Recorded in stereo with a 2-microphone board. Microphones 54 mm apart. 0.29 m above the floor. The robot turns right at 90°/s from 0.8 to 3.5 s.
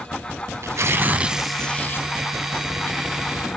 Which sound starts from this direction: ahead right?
Tearing paper, at 0.6 s.